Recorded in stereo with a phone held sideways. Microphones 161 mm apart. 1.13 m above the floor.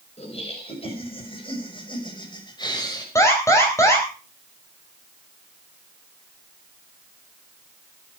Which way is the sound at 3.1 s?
20° left (ahead or behind).